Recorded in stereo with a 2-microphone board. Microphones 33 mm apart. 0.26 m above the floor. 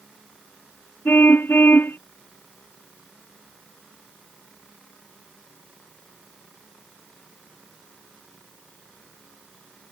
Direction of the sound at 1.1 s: 85° left.